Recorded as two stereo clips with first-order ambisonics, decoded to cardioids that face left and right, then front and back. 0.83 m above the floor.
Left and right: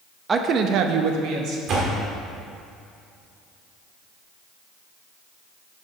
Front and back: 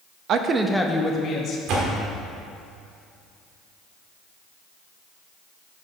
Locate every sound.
0.3 s a woman speaking: 155° right, 0.5 m; by 1.6 s 55° right, 1.0 m
1.7 s a door slam: 145° right, 1.6 m